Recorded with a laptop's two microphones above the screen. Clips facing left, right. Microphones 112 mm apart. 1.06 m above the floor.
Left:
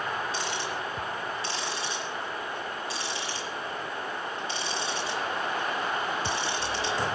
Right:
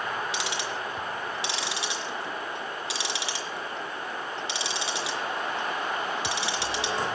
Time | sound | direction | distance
0.3 | ticking | 80° right | 3.5 m